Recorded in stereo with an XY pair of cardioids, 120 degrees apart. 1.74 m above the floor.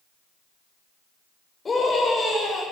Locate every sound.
1.6 s a scream: 25° left, 7 m